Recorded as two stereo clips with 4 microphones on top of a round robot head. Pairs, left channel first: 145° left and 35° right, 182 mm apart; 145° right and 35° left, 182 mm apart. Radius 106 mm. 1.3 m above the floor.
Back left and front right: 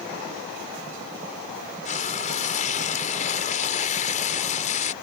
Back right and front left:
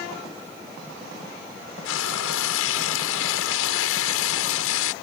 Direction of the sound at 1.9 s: 160° right.